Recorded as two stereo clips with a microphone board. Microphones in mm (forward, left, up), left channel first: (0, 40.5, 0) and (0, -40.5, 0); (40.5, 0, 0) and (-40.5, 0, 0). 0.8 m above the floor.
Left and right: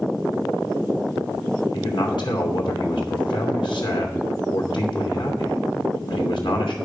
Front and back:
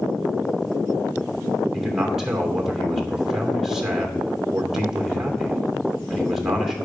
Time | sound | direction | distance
1.7 | a man speaking | 100° left | 2.5 m